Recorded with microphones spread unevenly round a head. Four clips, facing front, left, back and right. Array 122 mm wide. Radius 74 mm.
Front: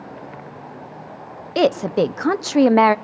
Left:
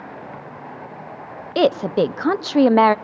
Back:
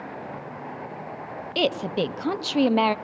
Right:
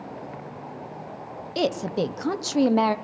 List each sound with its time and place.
1.6 s a woman speaking: 45° left, 0.7 m